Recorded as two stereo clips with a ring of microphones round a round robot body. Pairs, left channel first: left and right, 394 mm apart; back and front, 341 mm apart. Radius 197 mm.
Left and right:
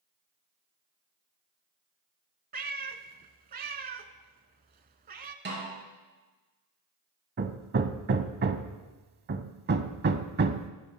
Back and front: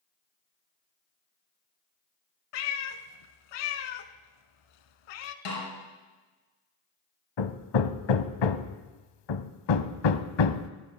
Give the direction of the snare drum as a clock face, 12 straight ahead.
5 o'clock.